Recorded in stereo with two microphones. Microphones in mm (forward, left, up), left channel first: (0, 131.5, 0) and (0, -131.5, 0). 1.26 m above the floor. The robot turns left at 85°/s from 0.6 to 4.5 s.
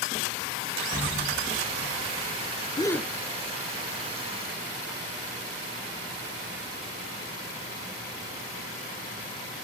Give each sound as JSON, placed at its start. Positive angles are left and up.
{"t": 0.9, "sound": "an explosion", "azimuth_deg": -165, "distance_m": 3.0}
{"t": 2.8, "sound": "a gasp", "side_deg": 20, "distance_m": 0.6}